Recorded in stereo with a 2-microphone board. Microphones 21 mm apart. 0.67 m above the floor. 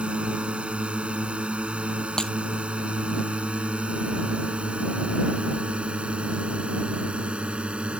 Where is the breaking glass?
35° left (ahead or behind).